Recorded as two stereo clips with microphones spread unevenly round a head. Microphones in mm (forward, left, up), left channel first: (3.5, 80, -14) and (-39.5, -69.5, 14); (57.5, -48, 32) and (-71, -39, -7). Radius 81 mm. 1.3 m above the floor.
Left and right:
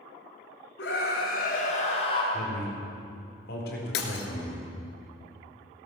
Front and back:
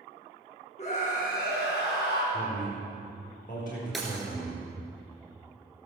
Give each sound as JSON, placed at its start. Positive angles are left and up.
{"t": 0.8, "sound": "a scream", "azimuth_deg": 45, "distance_m": 3.5}
{"t": 2.3, "sound": "a man speaking", "azimuth_deg": 40, "distance_m": 4.0}
{"t": 3.9, "sound": "breaking glass", "azimuth_deg": 70, "distance_m": 2.0}